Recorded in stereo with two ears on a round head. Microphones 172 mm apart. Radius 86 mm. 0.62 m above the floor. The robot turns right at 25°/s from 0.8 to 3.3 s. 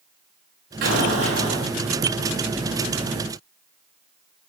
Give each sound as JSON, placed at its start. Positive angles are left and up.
{"t": 0.8, "sound": "an explosion", "side_deg": -45, "distance_m": 8.0}